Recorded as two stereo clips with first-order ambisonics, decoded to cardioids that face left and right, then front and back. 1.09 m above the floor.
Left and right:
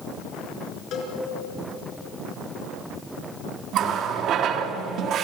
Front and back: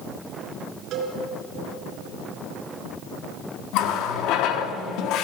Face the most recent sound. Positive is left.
turn(degrees=-40)